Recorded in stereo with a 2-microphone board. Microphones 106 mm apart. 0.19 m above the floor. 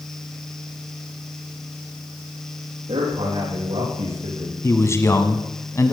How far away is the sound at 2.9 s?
About 7 m.